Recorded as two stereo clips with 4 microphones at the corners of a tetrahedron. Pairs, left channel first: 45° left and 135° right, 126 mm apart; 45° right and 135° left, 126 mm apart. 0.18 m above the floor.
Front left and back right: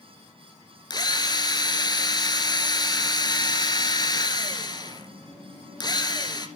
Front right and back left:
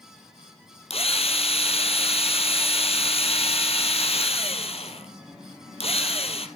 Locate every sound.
0.9 s a drill: 10° right, 1.7 m